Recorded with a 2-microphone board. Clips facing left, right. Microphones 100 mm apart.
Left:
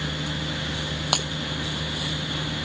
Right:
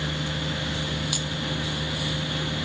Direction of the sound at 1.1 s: 70° left (ahead or behind).